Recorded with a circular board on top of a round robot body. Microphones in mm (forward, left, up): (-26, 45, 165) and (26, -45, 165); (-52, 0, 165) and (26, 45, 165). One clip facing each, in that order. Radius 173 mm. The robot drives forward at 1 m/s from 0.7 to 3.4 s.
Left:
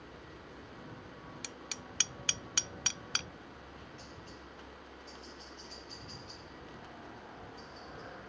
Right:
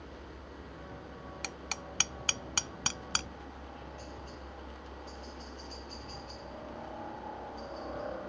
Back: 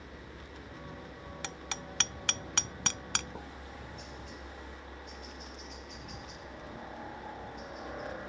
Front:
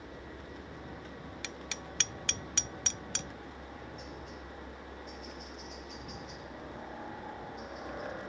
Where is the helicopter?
55° right; by 8.3 s 60° right.